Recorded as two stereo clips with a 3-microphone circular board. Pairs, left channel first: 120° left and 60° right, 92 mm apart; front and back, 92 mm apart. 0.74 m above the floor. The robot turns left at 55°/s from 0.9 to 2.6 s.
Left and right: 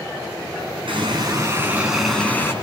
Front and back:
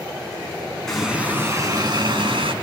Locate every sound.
0.9 s a running tap: 85° right, 5 m; by 2.5 s 175° right, 5 m